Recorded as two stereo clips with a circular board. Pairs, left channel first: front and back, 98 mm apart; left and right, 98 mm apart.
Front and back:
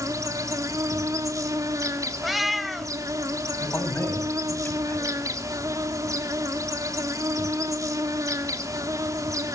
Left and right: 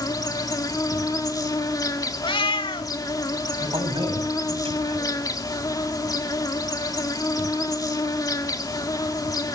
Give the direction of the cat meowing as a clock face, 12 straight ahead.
9 o'clock.